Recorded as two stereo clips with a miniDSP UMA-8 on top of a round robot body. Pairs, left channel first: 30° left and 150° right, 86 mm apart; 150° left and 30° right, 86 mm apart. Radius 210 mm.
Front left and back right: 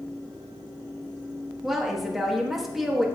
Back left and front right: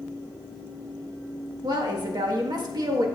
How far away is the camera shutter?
No camera shutter in this recording.